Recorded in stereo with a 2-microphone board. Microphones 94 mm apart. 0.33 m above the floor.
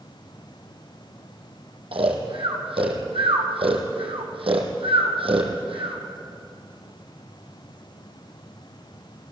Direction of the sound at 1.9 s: 85° right.